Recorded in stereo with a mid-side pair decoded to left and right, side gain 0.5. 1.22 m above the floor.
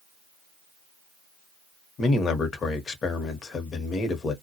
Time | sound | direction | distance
2.0 | a man speaking | 45° left | 0.9 m